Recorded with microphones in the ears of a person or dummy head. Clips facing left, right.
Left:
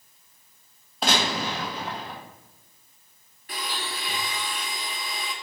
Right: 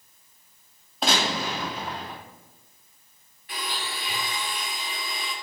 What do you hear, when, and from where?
1.0 s a gunshot: 5° left (ahead or behind), 0.9 m
3.5 s a blender: 35° left (ahead or behind), 1.1 m